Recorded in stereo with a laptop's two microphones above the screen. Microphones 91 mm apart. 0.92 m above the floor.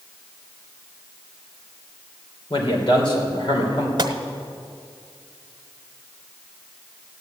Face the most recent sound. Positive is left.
turn(degrees=-50)  # may be behind; listen again after turning